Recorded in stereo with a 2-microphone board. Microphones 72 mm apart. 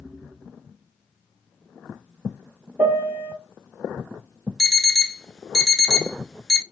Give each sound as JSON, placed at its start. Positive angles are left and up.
{"t": 2.8, "sound": "a piano", "side_deg": -25, "distance_m": 1.1}
{"t": 4.6, "sound": "an alarm clock", "side_deg": 5, "distance_m": 0.5}